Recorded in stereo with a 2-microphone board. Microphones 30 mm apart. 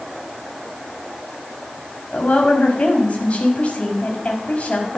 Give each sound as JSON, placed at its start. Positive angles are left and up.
{"t": 2.1, "sound": "a woman speaking", "side_deg": 45, "distance_m": 5.5}